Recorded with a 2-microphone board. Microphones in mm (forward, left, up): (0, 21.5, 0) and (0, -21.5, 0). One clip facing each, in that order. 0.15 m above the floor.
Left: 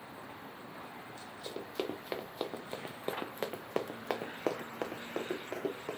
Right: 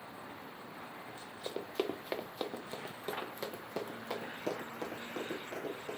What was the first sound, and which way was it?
Running footsteps, 25° right (ahead or behind).